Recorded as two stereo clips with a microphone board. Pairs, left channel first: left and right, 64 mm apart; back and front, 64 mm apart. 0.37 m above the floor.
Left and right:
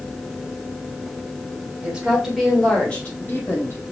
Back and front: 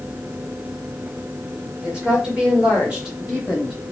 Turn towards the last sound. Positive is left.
turn(degrees=80)